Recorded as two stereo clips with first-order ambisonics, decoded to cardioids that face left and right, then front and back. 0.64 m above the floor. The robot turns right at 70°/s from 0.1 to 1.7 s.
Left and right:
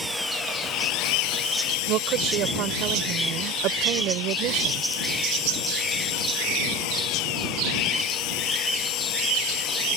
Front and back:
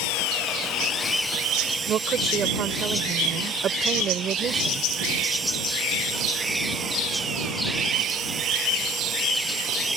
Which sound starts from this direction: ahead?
An engine running, at 0.0 s.